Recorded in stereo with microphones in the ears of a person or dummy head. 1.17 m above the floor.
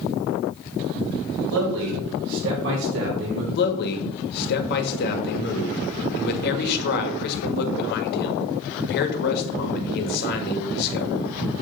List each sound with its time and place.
1.5 s a man speaking: 75° right (ahead or behind), 5 m; by 3.5 s 60° right (ahead or behind), 5 m
3.5 s a man speaking: 60° left (ahead or behind), 1.7 m